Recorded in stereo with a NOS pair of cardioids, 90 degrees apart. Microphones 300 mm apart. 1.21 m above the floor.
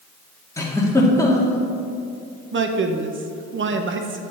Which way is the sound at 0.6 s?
10° left.